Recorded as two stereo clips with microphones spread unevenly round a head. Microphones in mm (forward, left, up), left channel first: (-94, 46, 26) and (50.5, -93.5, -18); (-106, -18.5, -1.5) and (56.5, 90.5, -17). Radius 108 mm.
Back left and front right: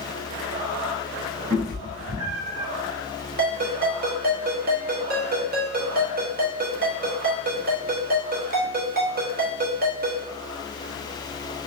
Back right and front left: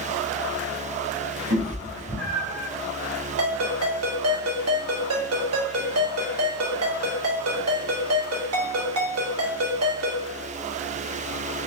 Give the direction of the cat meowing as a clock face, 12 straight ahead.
12 o'clock.